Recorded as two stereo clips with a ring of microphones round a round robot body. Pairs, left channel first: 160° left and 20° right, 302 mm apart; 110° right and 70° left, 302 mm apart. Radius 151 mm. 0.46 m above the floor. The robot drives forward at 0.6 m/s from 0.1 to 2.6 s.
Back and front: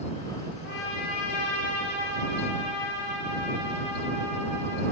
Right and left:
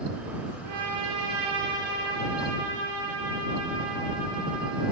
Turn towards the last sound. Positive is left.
turn(degrees=135)